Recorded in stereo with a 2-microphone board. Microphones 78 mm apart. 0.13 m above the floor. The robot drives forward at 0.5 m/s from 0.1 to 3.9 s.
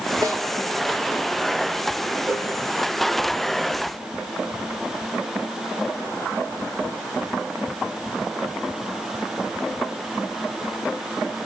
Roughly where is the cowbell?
Right.